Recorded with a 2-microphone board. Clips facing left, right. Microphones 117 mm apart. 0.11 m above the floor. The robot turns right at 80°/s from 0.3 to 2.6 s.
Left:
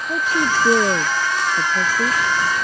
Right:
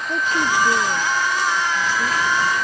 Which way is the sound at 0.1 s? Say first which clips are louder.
Left 1 dB; 5° left (ahead or behind).